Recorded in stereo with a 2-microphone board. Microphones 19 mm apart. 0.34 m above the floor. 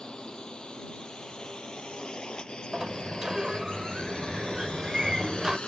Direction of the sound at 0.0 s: 40° left (ahead or behind).